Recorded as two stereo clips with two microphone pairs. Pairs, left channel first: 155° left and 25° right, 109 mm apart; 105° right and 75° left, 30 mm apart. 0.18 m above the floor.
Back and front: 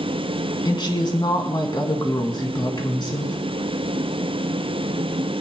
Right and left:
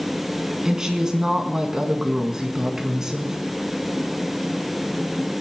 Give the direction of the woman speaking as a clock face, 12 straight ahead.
7 o'clock.